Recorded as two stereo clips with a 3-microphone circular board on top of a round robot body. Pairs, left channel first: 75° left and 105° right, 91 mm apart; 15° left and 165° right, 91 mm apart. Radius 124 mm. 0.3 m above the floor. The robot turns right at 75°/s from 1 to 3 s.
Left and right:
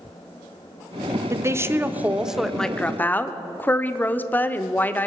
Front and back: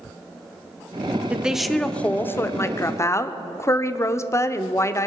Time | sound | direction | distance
1.3 | a woman speaking | 100° right | 1.0 m